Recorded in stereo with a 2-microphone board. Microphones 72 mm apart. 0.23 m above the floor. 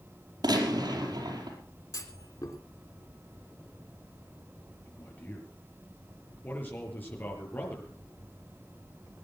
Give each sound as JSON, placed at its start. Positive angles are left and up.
{"t": 0.4, "sound": "a gunshot", "side_deg": -75, "distance_m": 4.5}
{"t": 1.9, "sound": "a clunk", "side_deg": 55, "distance_m": 3.0}
{"t": 4.8, "sound": "a man speaking", "side_deg": 25, "distance_m": 6.0}